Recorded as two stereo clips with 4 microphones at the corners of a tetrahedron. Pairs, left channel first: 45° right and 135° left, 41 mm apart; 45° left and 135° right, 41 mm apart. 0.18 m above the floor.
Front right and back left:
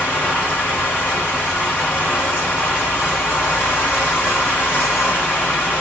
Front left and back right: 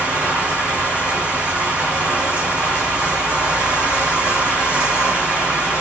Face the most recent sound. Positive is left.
turn(degrees=-70)